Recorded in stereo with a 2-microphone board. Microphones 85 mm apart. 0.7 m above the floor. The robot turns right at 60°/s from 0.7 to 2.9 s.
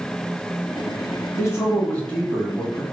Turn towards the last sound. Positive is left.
turn(degrees=-165)